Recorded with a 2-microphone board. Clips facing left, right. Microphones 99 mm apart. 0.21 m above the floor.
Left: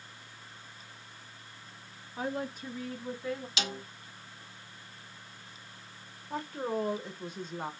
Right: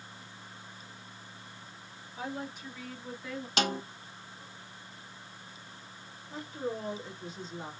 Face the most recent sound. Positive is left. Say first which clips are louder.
# left 3 dB
turn(degrees=55)  # may be behind; listen again after turning